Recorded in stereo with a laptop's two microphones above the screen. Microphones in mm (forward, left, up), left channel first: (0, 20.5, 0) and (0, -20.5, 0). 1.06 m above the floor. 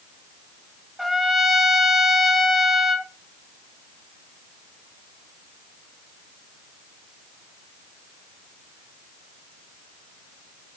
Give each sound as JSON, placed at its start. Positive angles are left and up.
{"t": 1.0, "sound": "a trumpet", "side_deg": -5, "distance_m": 0.9}